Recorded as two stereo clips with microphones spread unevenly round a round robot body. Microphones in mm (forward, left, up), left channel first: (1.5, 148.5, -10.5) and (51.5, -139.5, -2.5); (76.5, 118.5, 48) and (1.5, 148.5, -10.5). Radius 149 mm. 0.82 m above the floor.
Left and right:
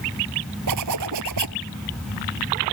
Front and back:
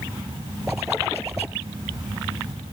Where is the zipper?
110° right.